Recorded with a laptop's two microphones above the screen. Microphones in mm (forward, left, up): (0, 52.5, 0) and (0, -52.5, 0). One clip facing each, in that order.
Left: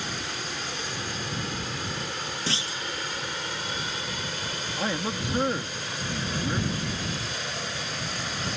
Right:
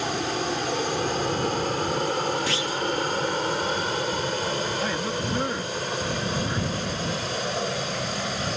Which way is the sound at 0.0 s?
45° right (ahead or behind).